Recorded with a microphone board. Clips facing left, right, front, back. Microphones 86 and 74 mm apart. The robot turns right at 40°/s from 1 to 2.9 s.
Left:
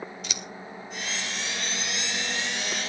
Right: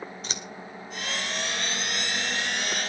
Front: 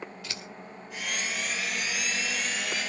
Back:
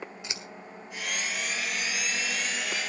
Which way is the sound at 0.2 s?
120° right.